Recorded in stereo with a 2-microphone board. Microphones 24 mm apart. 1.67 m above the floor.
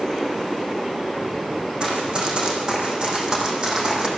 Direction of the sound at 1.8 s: 45° right (ahead or behind).